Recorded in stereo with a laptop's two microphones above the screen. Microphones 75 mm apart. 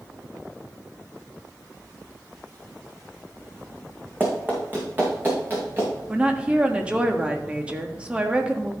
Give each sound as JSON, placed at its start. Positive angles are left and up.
{"t": 4.2, "sound": "running footsteps", "side_deg": -25, "distance_m": 4.0}
{"t": 6.1, "sound": "a woman speaking", "side_deg": -15, "distance_m": 1.5}